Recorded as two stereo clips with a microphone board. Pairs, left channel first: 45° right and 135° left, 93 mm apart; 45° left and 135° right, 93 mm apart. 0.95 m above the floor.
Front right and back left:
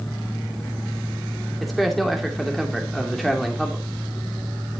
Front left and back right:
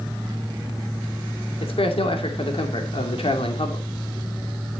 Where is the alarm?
I don't hear an alarm.